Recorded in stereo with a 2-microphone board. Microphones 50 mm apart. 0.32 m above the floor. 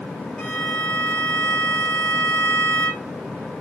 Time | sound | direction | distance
0.4 | a violin | 25° left (ahead or behind) | 1.1 m